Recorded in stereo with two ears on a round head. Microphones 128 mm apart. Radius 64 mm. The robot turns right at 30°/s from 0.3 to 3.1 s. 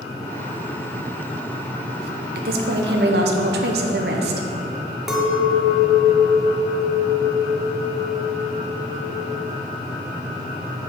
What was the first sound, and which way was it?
A woman speaking, 70° right (ahead or behind).